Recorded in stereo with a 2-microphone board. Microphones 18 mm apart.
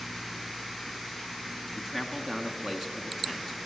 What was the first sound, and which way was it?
A man speaking, 20° right (ahead or behind).